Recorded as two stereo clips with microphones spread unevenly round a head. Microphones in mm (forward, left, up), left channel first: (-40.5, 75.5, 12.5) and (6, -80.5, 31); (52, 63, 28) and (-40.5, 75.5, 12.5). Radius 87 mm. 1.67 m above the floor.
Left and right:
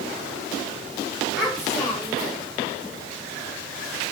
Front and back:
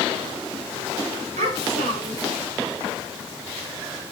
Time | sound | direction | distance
1.4 | a child speaking | 160° right | 3.5 m